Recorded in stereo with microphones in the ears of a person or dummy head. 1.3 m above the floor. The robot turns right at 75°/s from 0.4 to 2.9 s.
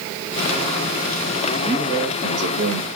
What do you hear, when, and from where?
1.6 s a man speaking: 170° right, 2.5 m; by 2.9 s 80° right, 2.5 m